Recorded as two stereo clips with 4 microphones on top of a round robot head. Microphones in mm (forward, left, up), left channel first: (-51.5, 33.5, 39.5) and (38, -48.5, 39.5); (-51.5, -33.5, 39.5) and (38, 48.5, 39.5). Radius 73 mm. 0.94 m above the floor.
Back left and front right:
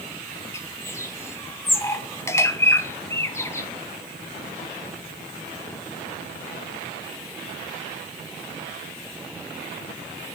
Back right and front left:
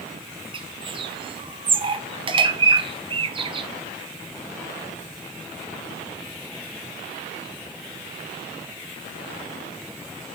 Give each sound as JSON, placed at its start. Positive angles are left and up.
{"t": 0.5, "sound": "a bird", "azimuth_deg": 75, "distance_m": 1.3}